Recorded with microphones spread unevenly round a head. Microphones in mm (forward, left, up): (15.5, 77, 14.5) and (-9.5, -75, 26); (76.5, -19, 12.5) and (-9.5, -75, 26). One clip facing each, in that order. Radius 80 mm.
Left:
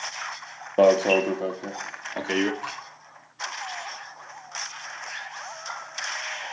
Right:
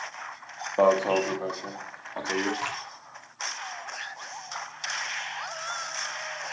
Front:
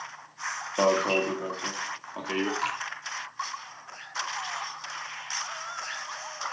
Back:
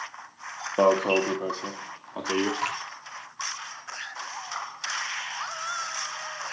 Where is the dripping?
100° right, 6 m.